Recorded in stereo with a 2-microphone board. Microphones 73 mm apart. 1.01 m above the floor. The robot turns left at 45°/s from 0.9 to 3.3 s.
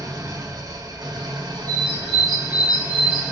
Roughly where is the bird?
Ahead right.